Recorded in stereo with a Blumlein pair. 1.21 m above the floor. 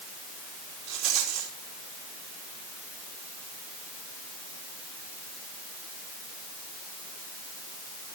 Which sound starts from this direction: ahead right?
A rattle, at 0.9 s.